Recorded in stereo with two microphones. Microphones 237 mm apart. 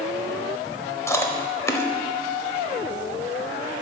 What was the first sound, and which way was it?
Chewing, 10° left (ahead or behind).